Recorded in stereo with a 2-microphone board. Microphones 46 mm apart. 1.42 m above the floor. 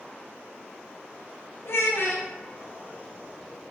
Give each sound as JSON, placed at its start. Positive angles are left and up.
{"t": 1.6, "sound": "a child speaking", "side_deg": 60, "distance_m": 0.6}